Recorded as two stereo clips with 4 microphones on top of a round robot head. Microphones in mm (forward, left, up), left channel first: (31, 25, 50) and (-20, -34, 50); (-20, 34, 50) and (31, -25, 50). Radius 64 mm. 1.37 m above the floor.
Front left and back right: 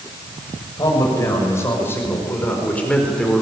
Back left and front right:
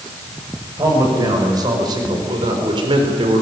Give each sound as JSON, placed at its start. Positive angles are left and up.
{"t": 0.8, "sound": "a man speaking", "azimuth_deg": -5, "distance_m": 6.5}